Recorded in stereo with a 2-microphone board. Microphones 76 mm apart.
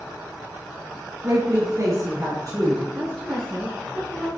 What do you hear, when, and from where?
1.2 s a woman speaking: 30° right (ahead or behind), 2 m; by 2.8 s 40° right (ahead or behind), 4 m
2.9 s a woman speaking: 10° right (ahead or behind), 3.5 m